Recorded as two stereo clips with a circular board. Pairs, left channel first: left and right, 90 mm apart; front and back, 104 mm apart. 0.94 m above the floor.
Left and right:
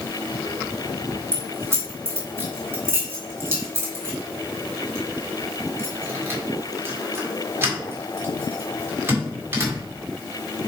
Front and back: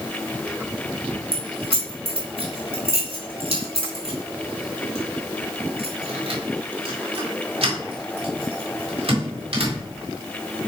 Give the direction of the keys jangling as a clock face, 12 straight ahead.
5 o'clock.